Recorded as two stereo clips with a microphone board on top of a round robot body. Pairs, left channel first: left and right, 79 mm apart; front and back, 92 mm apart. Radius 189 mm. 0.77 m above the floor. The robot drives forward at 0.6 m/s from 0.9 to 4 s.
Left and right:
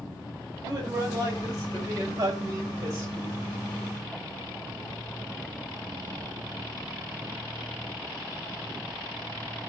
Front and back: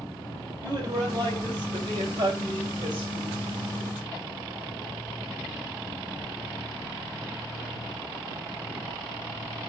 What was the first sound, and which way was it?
A man speaking, 135° right.